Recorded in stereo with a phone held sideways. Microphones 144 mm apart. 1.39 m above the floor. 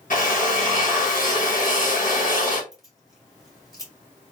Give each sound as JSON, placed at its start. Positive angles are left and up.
{"t": 0.1, "sound": "a drill", "side_deg": 65, "distance_m": 1.5}
{"t": 2.7, "sound": "keys jangling", "side_deg": 25, "distance_m": 1.8}